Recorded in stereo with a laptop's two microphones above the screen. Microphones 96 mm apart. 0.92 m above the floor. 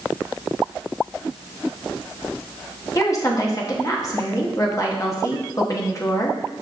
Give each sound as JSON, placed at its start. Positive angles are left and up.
{"t": 3.0, "sound": "a woman speaking", "side_deg": 35, "distance_m": 1.1}